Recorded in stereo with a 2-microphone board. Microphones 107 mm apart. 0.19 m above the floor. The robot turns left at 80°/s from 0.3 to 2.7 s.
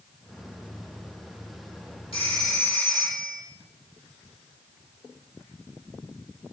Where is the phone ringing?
60° left, 4.5 m; by 3.4 s 15° left, 4.5 m.